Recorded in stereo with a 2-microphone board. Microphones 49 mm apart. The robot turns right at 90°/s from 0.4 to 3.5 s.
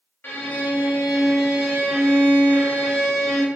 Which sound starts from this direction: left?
A violin, at 0.2 s.